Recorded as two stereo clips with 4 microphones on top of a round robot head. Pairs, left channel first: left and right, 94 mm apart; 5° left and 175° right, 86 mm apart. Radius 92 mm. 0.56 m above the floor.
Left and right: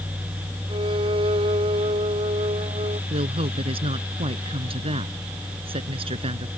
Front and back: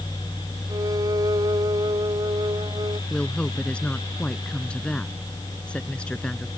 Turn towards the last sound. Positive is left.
turn(degrees=-75)